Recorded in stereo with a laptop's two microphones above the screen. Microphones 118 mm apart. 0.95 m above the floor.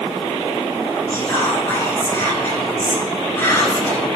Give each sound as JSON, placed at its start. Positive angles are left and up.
{"t": 1.1, "sound": "whispering", "side_deg": 25, "distance_m": 4.5}